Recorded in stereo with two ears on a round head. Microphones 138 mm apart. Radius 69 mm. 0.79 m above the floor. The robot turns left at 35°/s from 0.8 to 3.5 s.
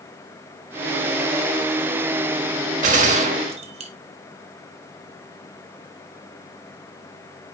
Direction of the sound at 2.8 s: 55° right (ahead or behind).